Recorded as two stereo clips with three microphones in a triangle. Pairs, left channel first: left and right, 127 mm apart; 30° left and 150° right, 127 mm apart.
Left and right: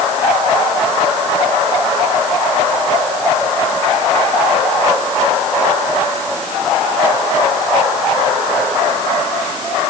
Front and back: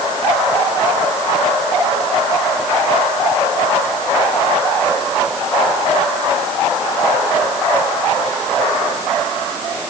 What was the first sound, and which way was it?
Only background noise.